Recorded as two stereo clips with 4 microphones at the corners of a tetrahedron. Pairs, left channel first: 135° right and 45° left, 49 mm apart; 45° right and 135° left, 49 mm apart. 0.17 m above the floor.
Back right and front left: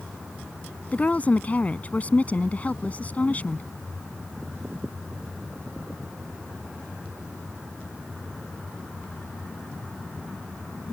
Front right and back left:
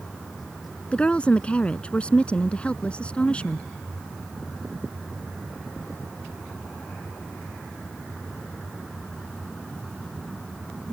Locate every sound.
0.9 s a woman speaking: 95° right